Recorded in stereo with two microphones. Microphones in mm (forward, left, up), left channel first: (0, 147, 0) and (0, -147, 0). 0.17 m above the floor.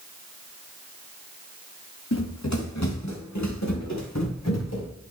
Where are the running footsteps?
70° left (ahead or behind), 3 m; by 4.9 s 65° left (ahead or behind), 5.5 m.